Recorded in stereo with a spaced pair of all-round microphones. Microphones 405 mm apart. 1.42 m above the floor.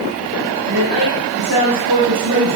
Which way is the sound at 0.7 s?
80° right.